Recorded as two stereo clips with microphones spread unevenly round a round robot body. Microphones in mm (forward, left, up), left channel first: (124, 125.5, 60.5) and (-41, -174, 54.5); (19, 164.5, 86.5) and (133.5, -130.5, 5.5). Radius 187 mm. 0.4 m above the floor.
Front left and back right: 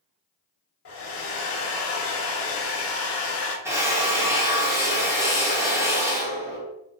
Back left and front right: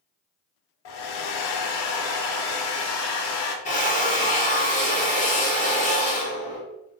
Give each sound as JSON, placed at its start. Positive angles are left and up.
{"t": 0.8, "sound": "a hair dryer", "azimuth_deg": 110, "distance_m": 0.6}
{"t": 3.6, "sound": "a drill", "azimuth_deg": 175, "distance_m": 0.8}